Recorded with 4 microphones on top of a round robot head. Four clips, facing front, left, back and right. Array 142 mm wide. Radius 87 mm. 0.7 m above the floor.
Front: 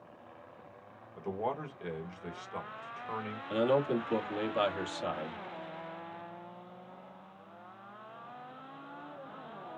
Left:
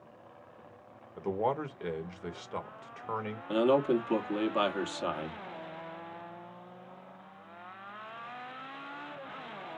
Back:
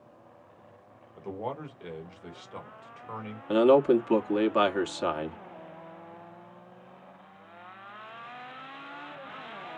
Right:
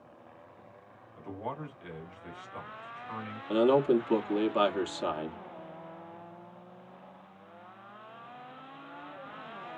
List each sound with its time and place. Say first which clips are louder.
1.2 s a man speaking: left 8 dB, even; 90° left, 2 m
3.5 s a man speaking: right 2 dB, back 9 dB; 175° right, 1.6 m